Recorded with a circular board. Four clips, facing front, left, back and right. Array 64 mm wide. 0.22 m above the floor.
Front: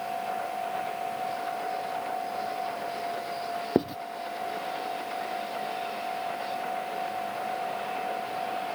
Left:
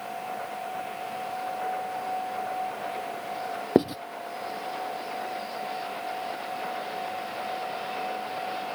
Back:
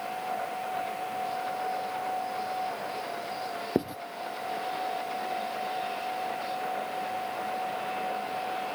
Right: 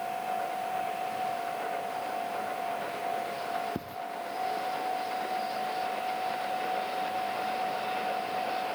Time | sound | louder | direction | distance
3.8 | writing | left 16 dB, front 3 dB | 75° left | ?